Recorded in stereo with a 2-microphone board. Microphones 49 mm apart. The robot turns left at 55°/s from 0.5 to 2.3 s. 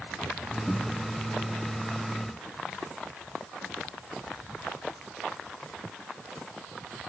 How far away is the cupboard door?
About 2 m.